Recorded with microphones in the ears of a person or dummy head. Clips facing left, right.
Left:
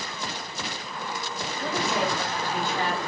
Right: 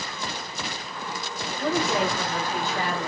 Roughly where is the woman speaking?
Right.